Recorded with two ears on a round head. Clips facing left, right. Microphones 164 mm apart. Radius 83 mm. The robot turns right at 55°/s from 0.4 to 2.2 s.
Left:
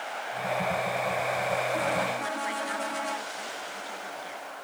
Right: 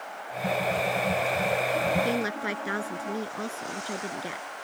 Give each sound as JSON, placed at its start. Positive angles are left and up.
{"t": 2.0, "sound": "a woman speaking", "side_deg": -55}